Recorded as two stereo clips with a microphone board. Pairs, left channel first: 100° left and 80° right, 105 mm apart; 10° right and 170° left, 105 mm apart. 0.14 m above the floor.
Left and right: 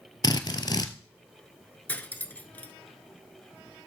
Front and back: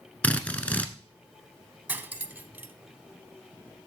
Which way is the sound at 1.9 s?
135° left.